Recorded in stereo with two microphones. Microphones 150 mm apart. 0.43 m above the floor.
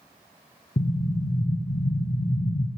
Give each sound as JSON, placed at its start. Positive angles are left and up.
{"t": 0.8, "sound": "an explosion", "side_deg": 70, "distance_m": 1.0}